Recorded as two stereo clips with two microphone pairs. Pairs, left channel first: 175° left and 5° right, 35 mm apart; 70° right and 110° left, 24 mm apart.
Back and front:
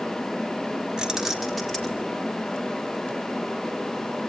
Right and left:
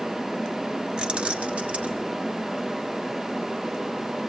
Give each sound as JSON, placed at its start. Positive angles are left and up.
{"t": 1.0, "sound": "keys jangling", "azimuth_deg": 60, "distance_m": 1.7}